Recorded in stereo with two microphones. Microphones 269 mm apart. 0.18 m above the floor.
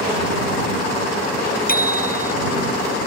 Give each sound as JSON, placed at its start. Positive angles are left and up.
{"t": 1.7, "sound": "a bicycle bell", "side_deg": 35}